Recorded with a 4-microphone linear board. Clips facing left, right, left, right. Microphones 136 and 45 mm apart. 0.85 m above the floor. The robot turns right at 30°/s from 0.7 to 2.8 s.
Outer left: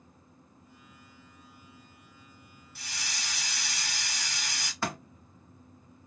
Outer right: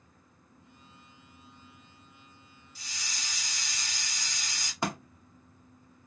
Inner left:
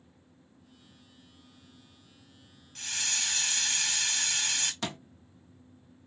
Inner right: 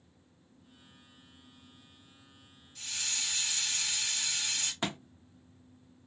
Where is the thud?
20° right (ahead or behind), 0.9 m.